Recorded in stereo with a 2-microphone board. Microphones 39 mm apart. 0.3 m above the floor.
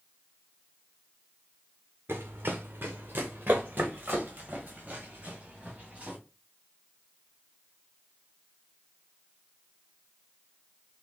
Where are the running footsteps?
70° right (ahead or behind), 0.9 m; by 6.2 s 35° right (ahead or behind), 2.5 m.